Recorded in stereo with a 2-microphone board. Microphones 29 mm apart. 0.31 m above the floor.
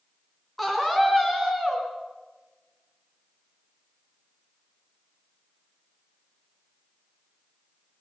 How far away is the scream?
About 5 m.